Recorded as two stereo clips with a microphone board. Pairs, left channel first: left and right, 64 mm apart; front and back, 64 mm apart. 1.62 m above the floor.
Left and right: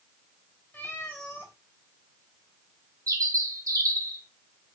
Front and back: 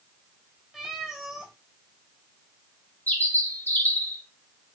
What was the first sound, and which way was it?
A cat meowing, 95° left.